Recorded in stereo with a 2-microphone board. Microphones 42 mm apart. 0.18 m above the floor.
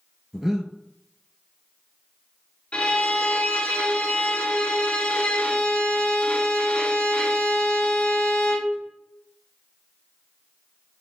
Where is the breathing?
10° right (ahead or behind), 0.7 m.